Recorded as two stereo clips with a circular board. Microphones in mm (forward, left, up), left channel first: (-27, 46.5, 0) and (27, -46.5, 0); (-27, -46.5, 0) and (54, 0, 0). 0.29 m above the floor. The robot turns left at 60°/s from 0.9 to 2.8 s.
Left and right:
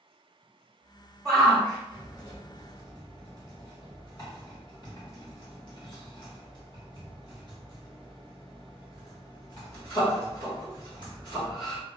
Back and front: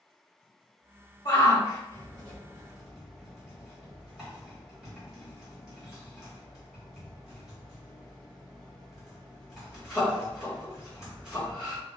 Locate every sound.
1.2 s a shout: 155° right, 1.7 m; by 11.8 s 110° left, 1.7 m